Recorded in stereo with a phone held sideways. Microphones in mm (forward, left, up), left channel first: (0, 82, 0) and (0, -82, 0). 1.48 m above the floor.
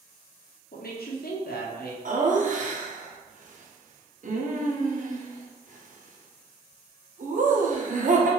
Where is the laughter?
50° right (ahead or behind), 0.6 m.